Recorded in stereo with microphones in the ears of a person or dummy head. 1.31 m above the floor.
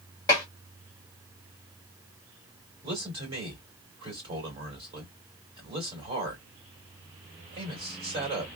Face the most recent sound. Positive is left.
turn(degrees=-25)  # may be behind; listen again after turning